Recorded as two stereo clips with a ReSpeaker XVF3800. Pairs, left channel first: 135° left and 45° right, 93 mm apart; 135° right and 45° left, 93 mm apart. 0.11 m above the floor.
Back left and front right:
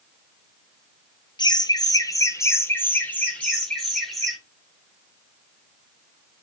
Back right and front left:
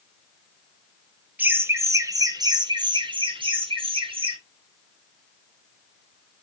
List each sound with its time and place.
1.4 s laughter: 110° left, 2 m; by 4.4 s 50° left, 3.5 m